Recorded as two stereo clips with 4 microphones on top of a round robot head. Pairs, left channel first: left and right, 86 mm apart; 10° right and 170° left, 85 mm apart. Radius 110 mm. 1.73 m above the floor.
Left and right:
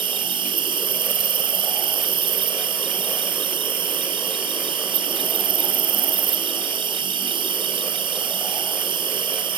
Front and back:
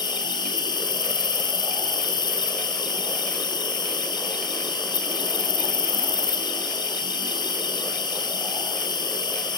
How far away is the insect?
About 1.0 m.